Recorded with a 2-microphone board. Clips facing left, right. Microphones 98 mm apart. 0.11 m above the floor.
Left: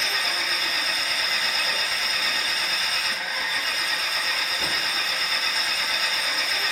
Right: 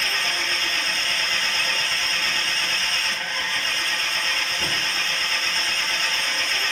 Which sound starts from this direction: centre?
An engine running, at 0.0 s.